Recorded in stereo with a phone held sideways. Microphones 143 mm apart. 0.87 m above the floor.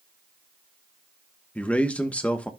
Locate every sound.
1.6 s a man speaking: 10° left (ahead or behind), 1.0 m